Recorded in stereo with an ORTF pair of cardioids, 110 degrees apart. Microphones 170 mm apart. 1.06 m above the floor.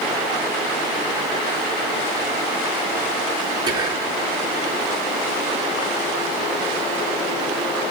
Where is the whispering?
25° right, 3.5 m.